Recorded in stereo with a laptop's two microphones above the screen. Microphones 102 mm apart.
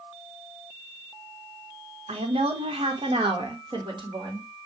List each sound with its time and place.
2.1 s a woman speaking: 70° right (ahead or behind), 1.1 m; by 4.5 s 45° right (ahead or behind), 2.0 m